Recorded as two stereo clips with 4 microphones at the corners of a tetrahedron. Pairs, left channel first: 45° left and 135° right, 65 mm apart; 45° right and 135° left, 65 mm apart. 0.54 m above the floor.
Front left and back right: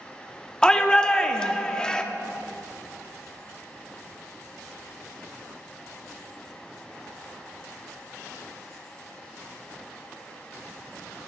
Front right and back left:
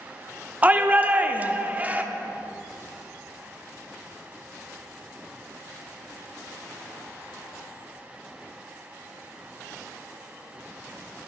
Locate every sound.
0.6 s a shout: 110° left, 0.6 m